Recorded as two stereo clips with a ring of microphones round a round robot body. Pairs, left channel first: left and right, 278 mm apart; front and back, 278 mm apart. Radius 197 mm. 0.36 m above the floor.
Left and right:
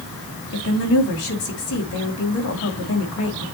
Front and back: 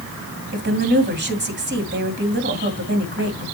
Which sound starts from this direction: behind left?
A woman speaking, at 0.5 s.